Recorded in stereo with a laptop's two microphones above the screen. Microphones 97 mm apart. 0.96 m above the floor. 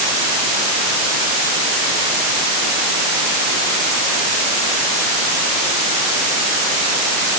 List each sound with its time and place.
Only background noise.